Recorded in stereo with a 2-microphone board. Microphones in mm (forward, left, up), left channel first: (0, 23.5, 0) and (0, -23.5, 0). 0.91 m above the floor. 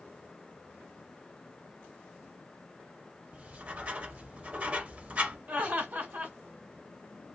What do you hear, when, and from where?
3.3 s writing: 35° right (ahead or behind), 0.7 m
5.5 s laughter: 40° right (ahead or behind), 1.2 m